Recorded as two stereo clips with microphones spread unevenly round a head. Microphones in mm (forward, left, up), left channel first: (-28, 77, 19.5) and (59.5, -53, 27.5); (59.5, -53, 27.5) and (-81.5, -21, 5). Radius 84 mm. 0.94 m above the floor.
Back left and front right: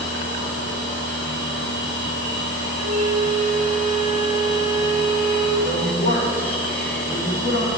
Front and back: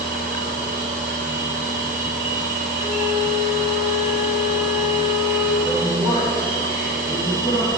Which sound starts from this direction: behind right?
A flute, at 2.8 s.